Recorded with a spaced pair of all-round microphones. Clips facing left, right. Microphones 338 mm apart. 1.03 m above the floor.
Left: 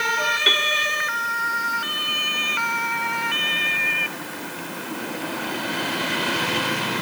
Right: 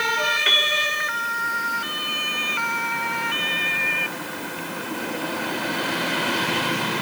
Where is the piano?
50° left (ahead or behind), 2.0 m.